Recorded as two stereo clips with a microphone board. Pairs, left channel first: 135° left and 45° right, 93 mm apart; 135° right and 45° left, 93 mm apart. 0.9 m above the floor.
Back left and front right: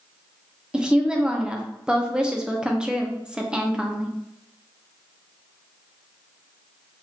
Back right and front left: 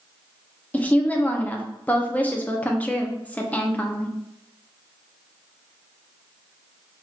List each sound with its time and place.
0.7 s a woman speaking: 105° right, 0.6 m